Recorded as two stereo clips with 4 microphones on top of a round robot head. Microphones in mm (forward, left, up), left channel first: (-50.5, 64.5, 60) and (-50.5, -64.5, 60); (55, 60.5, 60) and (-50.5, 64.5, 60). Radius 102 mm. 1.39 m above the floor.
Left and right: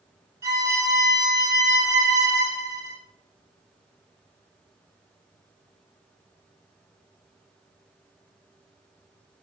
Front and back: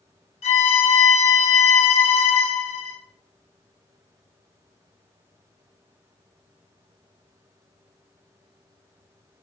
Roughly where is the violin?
Ahead.